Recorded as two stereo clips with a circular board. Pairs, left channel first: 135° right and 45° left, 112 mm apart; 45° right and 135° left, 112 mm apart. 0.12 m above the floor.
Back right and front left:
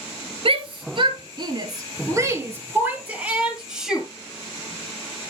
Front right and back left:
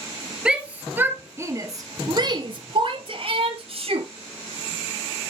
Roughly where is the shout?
Ahead left.